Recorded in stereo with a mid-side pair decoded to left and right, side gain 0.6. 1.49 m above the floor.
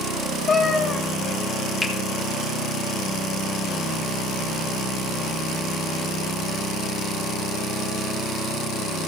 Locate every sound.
0.5 s a cat meowing: 30° left, 3 m
1.8 s a finger snap: 10° left, 3 m